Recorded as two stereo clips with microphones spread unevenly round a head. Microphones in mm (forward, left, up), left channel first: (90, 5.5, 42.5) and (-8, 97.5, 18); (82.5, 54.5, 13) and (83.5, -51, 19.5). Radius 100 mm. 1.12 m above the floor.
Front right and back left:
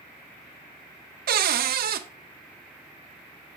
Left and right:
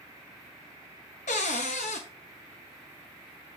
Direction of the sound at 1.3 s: 135° left.